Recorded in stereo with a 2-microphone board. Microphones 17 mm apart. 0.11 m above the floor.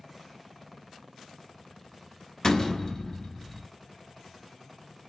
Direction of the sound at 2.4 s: 35° left (ahead or behind).